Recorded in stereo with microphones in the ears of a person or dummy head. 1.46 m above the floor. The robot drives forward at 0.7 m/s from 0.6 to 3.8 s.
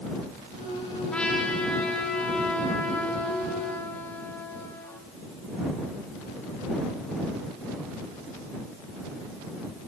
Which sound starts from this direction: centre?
A trumpet, at 1.1 s.